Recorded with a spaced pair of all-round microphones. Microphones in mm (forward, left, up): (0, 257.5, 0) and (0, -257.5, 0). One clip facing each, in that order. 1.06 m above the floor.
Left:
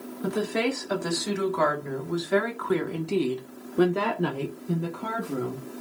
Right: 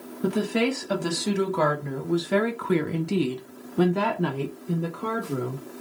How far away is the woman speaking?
About 1.7 m.